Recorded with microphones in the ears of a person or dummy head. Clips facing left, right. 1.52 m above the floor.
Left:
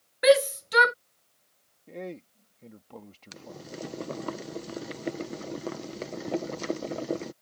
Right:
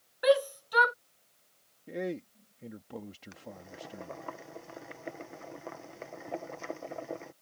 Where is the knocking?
I don't hear knocking.